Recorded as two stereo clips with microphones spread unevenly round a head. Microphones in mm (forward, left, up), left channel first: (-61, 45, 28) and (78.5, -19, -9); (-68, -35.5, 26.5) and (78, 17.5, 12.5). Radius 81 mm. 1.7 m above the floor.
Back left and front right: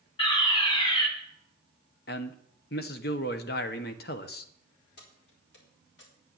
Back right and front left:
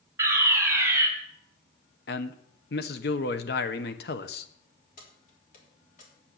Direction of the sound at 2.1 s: 175° left.